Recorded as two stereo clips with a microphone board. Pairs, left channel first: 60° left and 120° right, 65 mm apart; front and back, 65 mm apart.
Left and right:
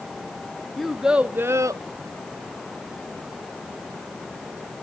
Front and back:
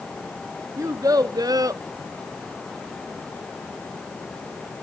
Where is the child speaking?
145° left, 0.7 m; by 1.8 s 145° right, 0.6 m.